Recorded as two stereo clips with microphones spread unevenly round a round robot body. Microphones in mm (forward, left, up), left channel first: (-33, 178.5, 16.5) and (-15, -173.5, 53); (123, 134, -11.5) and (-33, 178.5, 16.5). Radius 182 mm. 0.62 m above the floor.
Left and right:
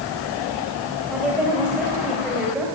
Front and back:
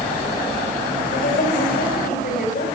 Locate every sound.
1.1 s a woman speaking: 5° left, 4 m